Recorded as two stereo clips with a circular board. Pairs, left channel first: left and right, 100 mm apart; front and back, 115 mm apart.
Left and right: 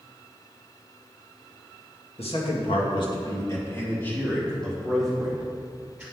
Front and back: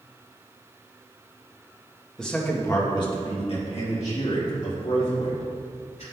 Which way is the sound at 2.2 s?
85° left.